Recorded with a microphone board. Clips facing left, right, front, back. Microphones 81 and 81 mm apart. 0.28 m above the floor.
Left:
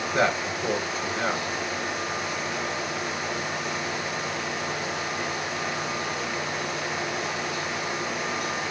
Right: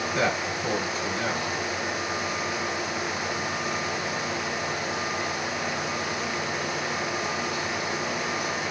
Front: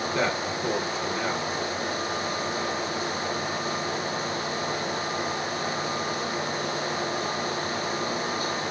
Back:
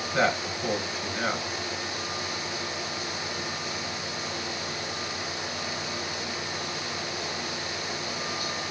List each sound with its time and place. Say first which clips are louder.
0.1 s a man speaking: left 3 dB, back 4 dB; 110° left, 3 m